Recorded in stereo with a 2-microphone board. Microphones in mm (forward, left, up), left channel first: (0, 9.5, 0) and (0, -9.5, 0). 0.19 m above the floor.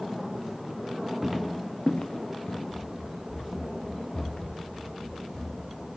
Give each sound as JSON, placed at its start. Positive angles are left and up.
{"t": 1.2, "sound": "footsteps", "side_deg": -10, "distance_m": 1.2}
{"t": 2.7, "sound": "running footsteps", "side_deg": -70, "distance_m": 1.2}